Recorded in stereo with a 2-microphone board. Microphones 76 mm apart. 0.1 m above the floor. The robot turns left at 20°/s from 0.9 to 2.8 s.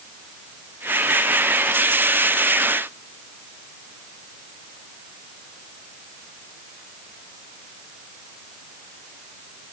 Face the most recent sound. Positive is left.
No sound to turn to.